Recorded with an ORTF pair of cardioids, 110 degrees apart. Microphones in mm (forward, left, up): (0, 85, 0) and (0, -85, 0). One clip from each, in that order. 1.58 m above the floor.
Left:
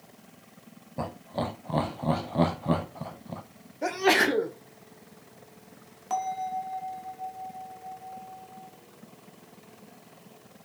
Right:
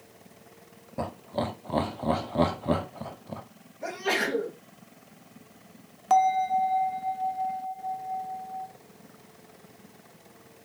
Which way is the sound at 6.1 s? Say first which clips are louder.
Right 8 dB; 30° right.